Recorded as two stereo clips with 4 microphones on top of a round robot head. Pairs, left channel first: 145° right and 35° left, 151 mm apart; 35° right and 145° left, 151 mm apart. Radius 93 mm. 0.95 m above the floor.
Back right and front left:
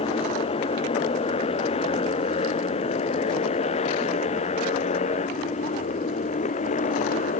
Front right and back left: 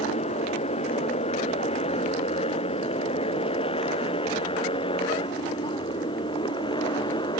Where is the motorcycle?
90° right; by 7.4 s 100° right.